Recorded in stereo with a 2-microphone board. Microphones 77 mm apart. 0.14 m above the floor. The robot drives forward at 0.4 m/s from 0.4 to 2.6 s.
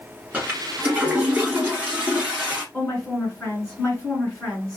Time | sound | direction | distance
0.3 | a toilet flushing | 20° right (ahead or behind) | 1.3 m
2.7 | a woman speaking | 15° left (ahead or behind) | 1.8 m